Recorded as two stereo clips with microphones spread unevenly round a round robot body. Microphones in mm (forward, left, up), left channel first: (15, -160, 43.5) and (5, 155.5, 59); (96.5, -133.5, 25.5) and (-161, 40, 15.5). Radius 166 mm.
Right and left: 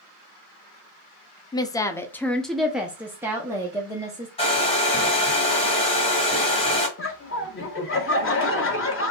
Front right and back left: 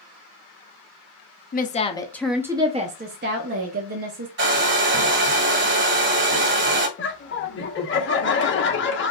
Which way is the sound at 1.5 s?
35° right.